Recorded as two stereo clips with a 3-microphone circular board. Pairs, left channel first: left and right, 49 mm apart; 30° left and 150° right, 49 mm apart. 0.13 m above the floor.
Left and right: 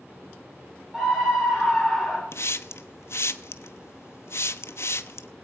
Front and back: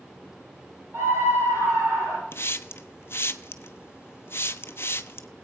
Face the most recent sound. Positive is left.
turn(degrees=65)